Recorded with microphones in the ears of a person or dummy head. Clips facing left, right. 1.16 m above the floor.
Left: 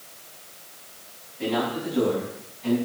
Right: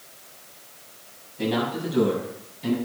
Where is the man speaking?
85° right, 7 m; by 2.8 s 80° right, 6 m.